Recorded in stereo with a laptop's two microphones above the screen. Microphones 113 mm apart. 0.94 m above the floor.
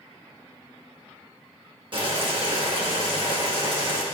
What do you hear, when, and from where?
1.9 s boiling: 45° right (ahead or behind), 1.6 m